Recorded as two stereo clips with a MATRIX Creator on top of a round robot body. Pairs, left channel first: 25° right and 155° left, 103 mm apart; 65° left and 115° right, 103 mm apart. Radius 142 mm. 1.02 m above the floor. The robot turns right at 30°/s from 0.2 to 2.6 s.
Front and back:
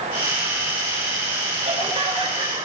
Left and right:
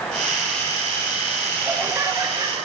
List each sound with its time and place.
1.6 s laughter: 175° left, 8 m; by 2.7 s 155° right, 8 m